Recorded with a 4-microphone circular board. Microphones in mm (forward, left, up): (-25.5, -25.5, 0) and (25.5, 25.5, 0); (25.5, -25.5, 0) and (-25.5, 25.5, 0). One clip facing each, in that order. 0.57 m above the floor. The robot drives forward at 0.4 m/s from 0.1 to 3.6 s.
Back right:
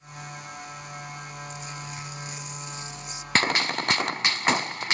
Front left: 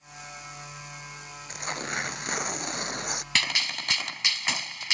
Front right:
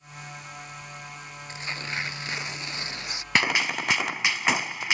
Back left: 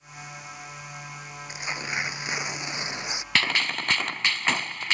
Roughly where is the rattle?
I don't hear a rattle.